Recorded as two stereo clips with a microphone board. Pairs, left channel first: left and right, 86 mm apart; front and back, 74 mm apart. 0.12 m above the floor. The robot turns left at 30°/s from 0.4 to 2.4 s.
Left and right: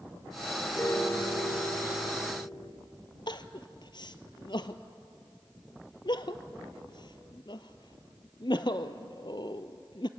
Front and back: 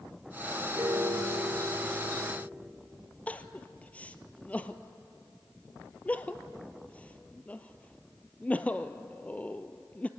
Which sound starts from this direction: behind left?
A piano, at 0.8 s.